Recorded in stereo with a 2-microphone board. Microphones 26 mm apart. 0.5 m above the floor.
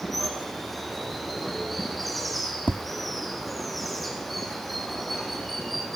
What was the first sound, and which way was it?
Running water, 5° left (ahead or behind).